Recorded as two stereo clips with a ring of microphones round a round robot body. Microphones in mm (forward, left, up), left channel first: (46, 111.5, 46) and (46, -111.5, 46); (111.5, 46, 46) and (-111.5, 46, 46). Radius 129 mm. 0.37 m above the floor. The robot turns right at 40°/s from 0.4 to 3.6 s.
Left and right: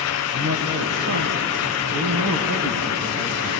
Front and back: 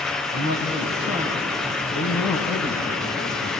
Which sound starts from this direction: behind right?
A man speaking, at 0.3 s.